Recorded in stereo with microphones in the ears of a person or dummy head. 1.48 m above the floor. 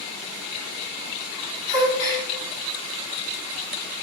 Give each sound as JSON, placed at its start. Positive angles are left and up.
{"t": 1.7, "sound": "a gasp", "side_deg": -25, "distance_m": 4.0}